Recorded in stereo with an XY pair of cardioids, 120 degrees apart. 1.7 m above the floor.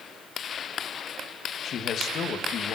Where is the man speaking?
60° left, 3 m.